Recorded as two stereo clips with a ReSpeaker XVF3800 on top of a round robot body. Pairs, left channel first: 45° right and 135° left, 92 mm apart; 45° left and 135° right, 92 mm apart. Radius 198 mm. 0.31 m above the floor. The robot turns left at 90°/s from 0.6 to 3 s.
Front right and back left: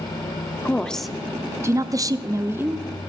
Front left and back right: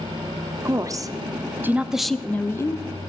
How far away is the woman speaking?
About 0.9 m.